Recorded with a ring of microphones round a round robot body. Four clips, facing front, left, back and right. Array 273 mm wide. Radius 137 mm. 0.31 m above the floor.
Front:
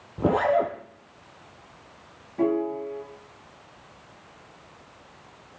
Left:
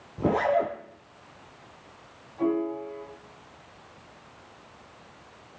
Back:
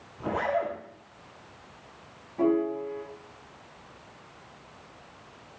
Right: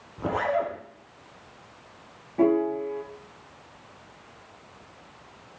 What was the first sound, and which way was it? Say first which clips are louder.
A zipper: left 2 dB, front 7 dB; 25° left.